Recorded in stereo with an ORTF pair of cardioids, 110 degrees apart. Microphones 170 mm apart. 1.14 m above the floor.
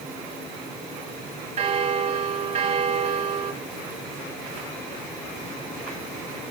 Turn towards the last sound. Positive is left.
turn(degrees=-40)